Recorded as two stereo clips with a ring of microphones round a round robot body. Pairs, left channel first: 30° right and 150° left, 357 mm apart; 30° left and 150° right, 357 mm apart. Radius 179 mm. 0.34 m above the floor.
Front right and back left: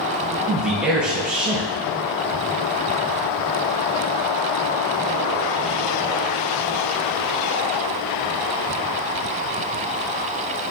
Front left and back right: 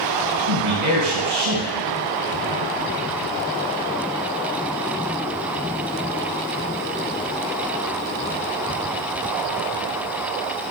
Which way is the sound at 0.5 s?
125° right.